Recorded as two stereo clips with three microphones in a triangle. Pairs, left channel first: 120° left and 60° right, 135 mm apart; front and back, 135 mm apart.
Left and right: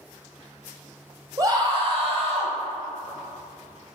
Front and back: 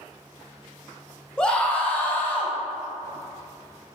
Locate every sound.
1.4 s a scream: 75° right, 1.0 m